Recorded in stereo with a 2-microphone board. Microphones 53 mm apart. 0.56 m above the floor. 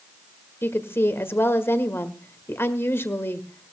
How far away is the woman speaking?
About 1.6 m.